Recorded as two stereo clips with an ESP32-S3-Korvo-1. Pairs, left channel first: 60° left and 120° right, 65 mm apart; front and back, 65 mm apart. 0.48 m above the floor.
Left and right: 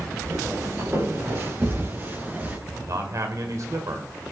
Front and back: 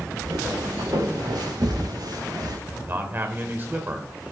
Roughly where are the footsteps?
Behind.